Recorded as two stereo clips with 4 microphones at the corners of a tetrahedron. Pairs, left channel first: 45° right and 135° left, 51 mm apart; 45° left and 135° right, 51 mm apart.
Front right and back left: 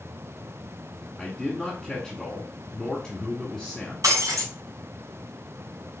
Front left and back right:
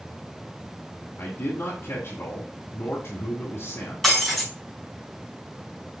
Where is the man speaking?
40° left, 1.6 m.